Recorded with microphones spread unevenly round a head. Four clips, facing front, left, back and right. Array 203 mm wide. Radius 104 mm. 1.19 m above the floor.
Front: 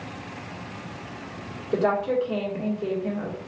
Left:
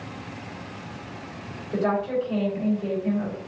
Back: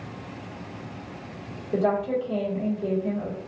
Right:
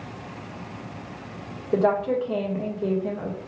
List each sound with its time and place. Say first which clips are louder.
1.7 s a woman speaking: right 3 dB, front 1 dB; 55° right, 1.6 m